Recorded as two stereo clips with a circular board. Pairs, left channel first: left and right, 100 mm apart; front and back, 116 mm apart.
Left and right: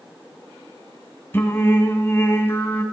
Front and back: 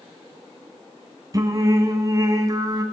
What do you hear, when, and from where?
1.3 s singing: 145° left, 1.6 m